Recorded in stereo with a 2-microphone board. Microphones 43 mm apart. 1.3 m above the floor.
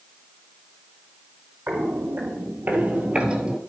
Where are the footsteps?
60° right (ahead or behind), 2.5 m; by 3.6 s 15° right (ahead or behind), 1.3 m.